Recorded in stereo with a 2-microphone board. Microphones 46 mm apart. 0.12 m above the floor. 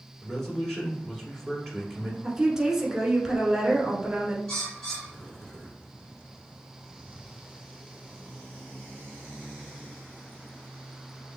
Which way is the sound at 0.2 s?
10° left (ahead or behind).